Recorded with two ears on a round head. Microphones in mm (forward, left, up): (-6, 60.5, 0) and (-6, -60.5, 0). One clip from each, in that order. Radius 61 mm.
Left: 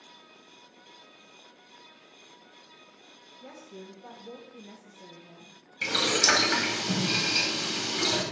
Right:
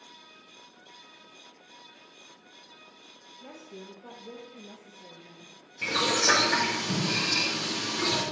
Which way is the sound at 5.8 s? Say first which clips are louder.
Left 1 dB; 50° left (ahead or behind).